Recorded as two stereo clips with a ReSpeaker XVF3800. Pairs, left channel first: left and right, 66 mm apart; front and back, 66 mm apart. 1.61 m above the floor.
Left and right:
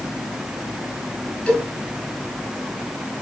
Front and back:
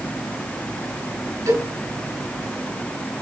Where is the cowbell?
165° left, 5 m.